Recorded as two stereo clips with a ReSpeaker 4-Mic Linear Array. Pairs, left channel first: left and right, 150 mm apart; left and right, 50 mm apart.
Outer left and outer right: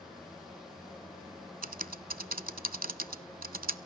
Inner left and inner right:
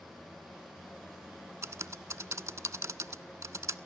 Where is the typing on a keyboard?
70° right (ahead or behind), 0.5 m.